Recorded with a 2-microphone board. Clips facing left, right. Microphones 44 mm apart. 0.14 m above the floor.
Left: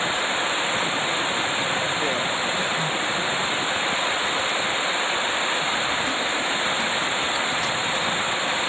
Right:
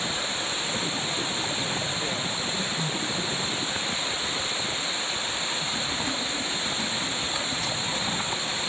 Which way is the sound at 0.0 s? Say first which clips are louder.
Left 6 dB; 35° left (ahead or behind).